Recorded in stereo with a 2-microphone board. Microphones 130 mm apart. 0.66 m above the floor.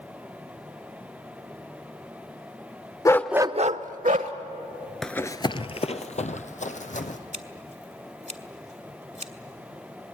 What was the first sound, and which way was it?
A dog barking, 25° left (ahead or behind).